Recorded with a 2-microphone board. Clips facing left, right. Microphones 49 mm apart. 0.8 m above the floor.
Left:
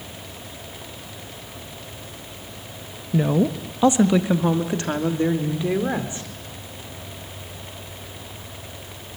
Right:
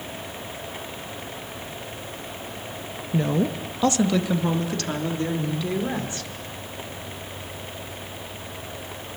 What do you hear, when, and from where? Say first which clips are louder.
3.1 s a woman speaking: left 3 dB; 10° left (ahead or behind), 1.0 m; by 6.3 s 25° left (ahead or behind), 3.5 m